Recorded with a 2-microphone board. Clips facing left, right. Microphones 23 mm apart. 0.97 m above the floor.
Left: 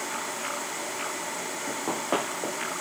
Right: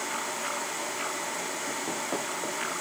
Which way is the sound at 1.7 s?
60° left (ahead or behind).